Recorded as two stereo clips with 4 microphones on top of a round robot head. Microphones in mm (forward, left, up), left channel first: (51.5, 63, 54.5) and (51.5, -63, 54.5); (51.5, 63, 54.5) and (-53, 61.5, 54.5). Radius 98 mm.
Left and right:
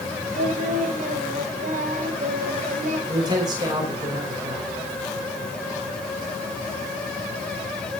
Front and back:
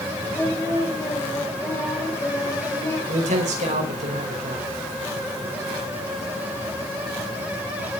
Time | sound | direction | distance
0.3 | singing | 75° right | 4 m
3.1 | a man speaking | 155° right | 5 m